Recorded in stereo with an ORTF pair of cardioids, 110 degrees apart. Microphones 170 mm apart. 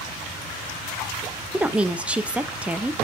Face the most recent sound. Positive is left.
turn(degrees=-5)